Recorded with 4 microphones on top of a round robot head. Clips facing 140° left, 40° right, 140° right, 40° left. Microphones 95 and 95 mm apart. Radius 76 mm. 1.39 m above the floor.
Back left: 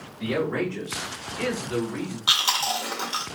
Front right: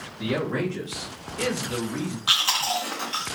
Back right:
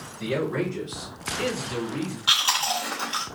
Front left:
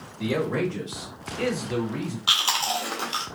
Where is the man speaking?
35° left, 2.5 m; by 2.2 s 15° left, 3 m.